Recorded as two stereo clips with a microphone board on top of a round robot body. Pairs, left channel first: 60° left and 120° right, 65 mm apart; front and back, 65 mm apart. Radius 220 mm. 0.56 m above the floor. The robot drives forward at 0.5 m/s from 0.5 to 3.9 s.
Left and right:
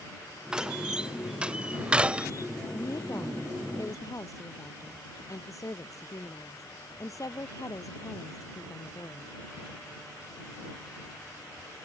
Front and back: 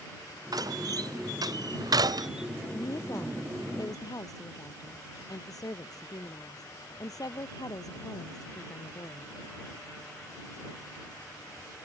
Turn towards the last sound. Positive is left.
turn(degrees=25)